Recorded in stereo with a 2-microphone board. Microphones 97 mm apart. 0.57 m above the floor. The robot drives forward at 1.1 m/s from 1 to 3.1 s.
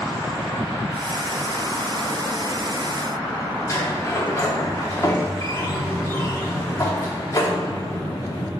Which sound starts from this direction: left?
A sliding door, at 3.7 s.